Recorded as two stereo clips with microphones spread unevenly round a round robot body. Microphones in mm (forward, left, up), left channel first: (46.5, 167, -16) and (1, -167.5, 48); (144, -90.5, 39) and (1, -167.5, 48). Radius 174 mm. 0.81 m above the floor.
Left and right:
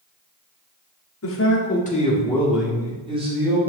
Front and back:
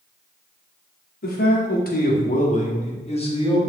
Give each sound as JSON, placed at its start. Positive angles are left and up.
{"t": 1.2, "sound": "a man speaking", "azimuth_deg": 45, "distance_m": 2.5}